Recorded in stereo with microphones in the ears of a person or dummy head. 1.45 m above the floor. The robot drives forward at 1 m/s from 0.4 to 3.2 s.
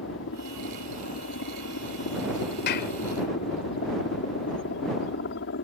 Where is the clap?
55° left (ahead or behind); by 2.9 s 60° left (ahead or behind).